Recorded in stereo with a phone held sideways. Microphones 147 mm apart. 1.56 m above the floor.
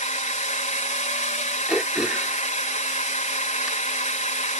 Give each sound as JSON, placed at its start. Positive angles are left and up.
{"t": 0.0, "sound": "a drone", "side_deg": 55}
{"t": 1.7, "sound": "throat clearing", "side_deg": -5}